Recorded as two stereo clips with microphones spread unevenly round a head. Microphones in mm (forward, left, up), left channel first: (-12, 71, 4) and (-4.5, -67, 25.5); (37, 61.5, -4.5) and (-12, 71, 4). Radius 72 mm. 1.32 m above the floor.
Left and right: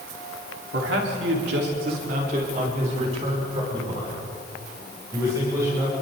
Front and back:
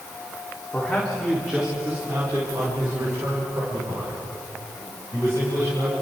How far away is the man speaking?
About 4 m.